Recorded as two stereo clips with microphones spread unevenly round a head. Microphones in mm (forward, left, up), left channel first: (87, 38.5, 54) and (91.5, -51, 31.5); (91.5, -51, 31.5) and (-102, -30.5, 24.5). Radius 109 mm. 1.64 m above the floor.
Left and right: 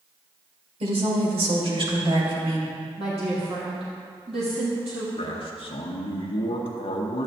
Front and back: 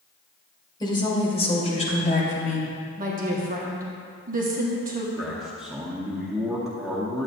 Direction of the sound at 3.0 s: 140° right.